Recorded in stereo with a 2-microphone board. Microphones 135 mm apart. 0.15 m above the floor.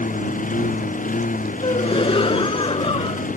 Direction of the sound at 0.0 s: 80° left.